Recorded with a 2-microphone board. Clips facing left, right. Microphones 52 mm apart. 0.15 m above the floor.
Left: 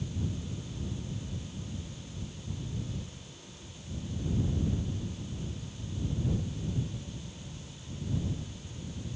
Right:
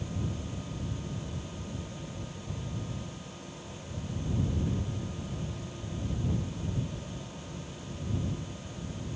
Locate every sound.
Only background noise.